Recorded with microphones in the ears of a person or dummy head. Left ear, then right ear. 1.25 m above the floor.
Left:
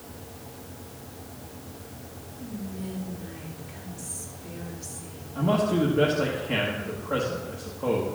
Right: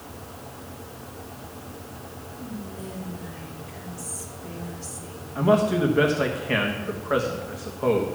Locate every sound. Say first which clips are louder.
2.4 s whispering: even; 20° right (ahead or behind), 3 m
5.3 s a man speaking: right 4 dB; 45° right (ahead or behind), 1.1 m